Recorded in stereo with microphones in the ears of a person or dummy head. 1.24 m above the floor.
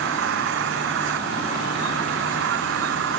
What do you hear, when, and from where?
0.0 s an engine running: 60° right (ahead or behind)